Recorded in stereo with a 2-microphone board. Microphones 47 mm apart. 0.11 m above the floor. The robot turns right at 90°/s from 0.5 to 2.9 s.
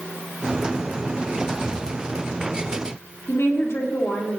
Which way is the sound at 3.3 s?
65° left (ahead or behind).